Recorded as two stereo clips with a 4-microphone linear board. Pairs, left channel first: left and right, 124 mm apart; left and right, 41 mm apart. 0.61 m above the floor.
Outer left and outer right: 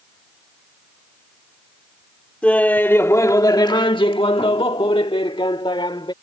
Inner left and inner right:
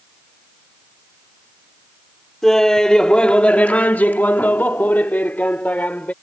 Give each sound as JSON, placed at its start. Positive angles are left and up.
{"t": 2.4, "sound": "laughter", "side_deg": 10}